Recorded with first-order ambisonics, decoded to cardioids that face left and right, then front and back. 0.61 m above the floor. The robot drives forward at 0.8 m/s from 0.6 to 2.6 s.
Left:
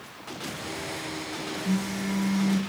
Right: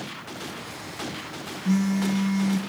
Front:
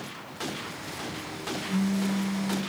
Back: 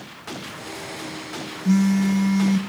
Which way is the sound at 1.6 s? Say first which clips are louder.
Right 8 dB, back 10 dB; 160° right.